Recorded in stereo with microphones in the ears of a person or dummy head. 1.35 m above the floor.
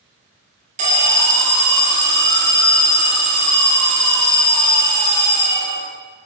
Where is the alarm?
35° right (ahead or behind), 0.9 m.